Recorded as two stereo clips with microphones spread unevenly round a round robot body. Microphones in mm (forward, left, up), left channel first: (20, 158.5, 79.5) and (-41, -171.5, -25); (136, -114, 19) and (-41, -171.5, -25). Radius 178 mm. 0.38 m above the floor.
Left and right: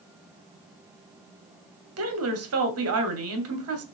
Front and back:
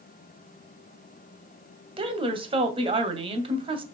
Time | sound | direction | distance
2.0 | a woman speaking | 115° right | 2.0 m